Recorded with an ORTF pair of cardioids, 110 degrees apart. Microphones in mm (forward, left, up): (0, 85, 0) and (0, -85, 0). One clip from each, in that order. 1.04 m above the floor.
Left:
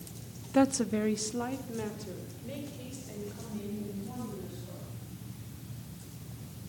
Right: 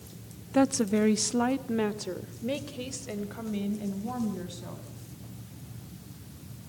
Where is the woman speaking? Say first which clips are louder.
Right 2 dB; straight ahead, 1.3 m; by 4.9 s 75° right, 7 m.